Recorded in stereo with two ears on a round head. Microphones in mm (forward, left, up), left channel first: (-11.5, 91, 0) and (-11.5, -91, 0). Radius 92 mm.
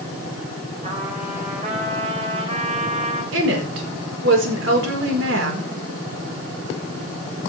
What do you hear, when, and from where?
0.8 s a trumpet: 30° right (ahead or behind), 4 m
3.3 s a woman speaking: 65° right (ahead or behind), 4.5 m